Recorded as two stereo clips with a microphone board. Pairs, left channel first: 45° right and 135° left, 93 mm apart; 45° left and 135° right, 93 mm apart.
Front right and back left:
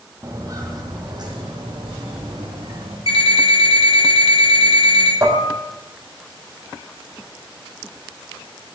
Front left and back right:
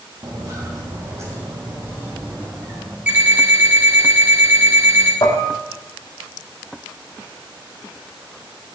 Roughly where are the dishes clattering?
Left.